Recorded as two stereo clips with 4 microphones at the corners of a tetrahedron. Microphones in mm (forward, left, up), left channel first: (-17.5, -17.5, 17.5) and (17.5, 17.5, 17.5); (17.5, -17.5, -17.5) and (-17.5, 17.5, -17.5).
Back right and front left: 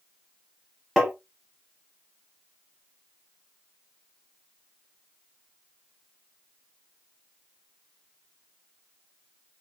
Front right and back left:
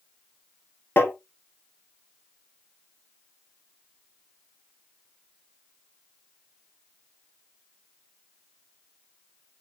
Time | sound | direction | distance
1.0 | tapping | 55° right | 1.5 m